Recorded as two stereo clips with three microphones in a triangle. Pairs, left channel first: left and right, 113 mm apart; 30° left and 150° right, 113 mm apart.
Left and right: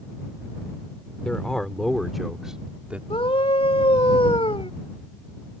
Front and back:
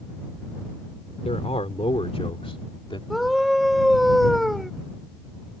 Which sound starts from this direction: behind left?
A scream, at 3.1 s.